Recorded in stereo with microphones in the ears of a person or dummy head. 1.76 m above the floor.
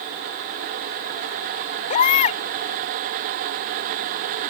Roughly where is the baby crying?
Left.